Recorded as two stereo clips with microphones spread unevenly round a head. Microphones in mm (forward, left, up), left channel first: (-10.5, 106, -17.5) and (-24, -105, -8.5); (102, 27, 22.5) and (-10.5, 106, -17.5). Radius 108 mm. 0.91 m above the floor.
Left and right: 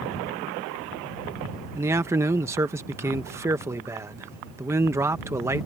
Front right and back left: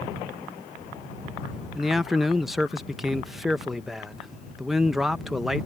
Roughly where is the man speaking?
Behind.